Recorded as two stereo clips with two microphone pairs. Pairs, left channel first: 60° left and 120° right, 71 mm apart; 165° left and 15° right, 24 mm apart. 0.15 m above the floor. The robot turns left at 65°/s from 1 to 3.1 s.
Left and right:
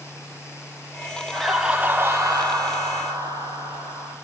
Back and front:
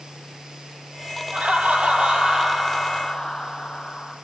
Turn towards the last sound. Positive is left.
turn(degrees=-135)